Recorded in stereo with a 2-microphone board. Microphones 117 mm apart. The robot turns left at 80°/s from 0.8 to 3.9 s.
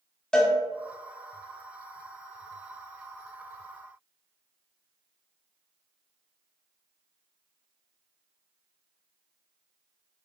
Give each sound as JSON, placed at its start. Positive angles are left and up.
{"t": 0.3, "sound": "a cowbell", "side_deg": 5, "distance_m": 0.6}